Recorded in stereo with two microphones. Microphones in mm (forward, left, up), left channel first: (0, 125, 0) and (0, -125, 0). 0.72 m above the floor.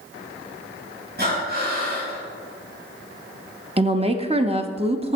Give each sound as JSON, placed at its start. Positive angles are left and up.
{"t": 1.2, "sound": "breathing", "side_deg": -40, "distance_m": 3.5}
{"t": 3.8, "sound": "a woman speaking", "side_deg": -25, "distance_m": 0.6}